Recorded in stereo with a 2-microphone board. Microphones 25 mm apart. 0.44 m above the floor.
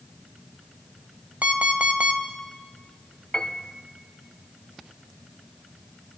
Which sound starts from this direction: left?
A piano, at 3.3 s.